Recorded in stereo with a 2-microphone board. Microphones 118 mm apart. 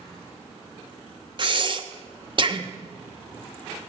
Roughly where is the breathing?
Right.